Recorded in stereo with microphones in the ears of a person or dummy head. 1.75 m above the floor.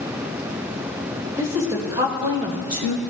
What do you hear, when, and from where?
1.4 s a woman speaking: 20° right (ahead or behind), 3.5 m; by 3.0 s 45° right (ahead or behind), 1.4 m